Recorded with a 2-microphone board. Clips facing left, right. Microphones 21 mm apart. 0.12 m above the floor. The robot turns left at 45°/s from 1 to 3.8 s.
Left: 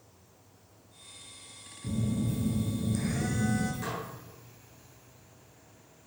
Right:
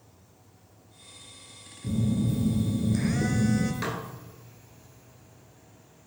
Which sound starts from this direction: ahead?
A phone buzzing, at 1.8 s.